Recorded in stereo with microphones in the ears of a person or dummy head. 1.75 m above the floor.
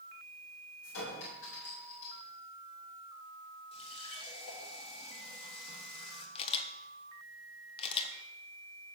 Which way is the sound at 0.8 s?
80° left.